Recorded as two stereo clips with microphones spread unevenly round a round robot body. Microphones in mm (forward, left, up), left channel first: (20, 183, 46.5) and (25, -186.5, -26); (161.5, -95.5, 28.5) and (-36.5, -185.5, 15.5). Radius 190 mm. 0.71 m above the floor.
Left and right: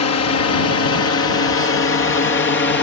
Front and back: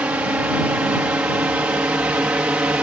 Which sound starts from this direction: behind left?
A drone, at 0.0 s.